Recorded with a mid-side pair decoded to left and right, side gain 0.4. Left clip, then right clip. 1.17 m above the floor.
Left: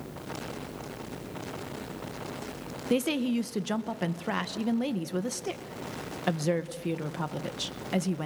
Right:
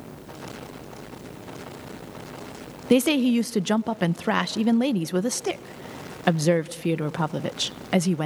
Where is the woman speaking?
60° right, 0.6 m.